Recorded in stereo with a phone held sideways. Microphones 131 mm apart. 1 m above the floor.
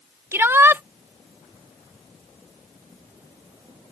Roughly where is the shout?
Centre.